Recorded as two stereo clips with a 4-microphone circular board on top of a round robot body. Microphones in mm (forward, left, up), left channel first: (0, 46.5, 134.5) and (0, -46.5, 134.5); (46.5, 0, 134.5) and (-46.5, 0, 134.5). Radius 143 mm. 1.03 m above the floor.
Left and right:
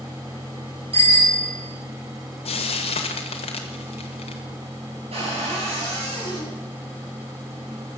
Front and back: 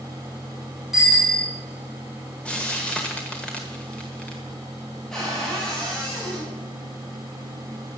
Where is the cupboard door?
85° right, 6.5 m.